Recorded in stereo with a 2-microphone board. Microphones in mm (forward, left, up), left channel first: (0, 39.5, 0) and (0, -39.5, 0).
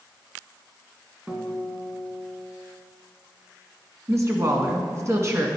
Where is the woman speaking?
40° right (ahead or behind), 1.8 m.